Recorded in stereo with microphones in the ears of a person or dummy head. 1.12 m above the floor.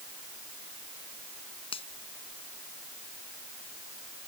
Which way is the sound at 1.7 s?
30° left (ahead or behind).